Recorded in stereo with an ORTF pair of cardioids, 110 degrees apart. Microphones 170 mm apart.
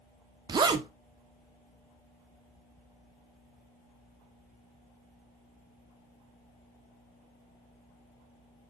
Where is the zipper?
25° right, 0.6 m.